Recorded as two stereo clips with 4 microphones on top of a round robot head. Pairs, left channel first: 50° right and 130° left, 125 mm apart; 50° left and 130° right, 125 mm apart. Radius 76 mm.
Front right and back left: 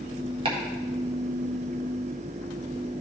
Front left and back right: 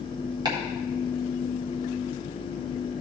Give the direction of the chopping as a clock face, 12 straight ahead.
6 o'clock.